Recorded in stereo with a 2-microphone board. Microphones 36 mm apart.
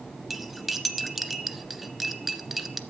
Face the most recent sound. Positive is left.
turn(degrees=0)  # may be behind; listen again after turning